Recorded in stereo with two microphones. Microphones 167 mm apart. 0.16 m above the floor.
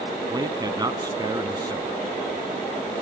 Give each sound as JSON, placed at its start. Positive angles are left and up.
{"t": 0.3, "sound": "a man speaking", "side_deg": -25, "distance_m": 1.3}